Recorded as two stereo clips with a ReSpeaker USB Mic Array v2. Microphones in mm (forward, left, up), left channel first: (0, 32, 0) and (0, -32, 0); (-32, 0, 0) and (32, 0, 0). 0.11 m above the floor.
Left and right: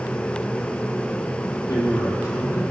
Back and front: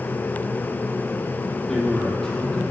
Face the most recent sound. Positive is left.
turn(degrees=100)